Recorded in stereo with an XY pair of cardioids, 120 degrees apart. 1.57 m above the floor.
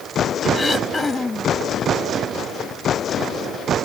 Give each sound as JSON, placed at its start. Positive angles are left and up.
{"t": 0.5, "sound": "throat clearing", "azimuth_deg": 20}